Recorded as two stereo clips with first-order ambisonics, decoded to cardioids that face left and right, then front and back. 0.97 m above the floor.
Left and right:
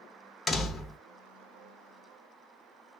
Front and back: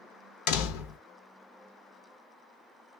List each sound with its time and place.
0.5 s a door slam: 10° left, 0.6 m